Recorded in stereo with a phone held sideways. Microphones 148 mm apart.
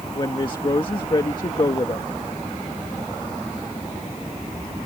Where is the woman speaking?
35° left (ahead or behind).